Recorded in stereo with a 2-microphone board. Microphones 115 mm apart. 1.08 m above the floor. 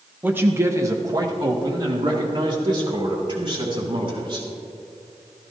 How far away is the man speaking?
About 1.0 m.